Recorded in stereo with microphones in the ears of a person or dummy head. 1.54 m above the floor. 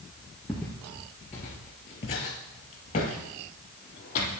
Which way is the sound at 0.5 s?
5° left (ahead or behind).